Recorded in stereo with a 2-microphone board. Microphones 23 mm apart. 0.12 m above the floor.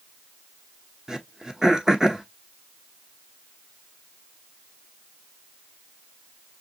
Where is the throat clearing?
30° right (ahead or behind), 0.9 m.